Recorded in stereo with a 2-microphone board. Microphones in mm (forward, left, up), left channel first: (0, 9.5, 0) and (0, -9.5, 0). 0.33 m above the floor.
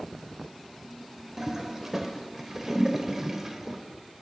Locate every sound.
1.4 s a toilet flushing: 25° right (ahead or behind), 0.7 m